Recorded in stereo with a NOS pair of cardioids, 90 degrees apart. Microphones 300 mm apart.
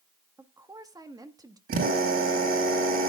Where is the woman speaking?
10° right, 1.5 m.